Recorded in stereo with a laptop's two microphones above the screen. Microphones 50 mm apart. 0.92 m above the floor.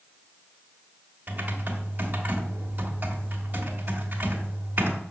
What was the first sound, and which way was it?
Typing on a keyboard, 40° right (ahead or behind).